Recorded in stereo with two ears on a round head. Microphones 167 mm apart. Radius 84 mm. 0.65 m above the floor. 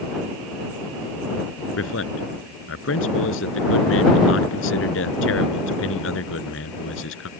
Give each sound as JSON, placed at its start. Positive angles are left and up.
{"t": 1.8, "sound": "a man speaking", "side_deg": 80}